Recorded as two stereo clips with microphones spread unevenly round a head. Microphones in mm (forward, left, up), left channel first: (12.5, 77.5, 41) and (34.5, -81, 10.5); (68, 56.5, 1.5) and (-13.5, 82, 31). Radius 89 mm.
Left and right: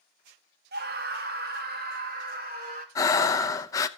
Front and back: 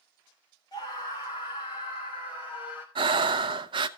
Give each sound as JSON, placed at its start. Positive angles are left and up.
{"t": 0.7, "sound": "a scream", "azimuth_deg": -70, "distance_m": 1.2}
{"t": 3.0, "sound": "breathing", "azimuth_deg": 170, "distance_m": 0.6}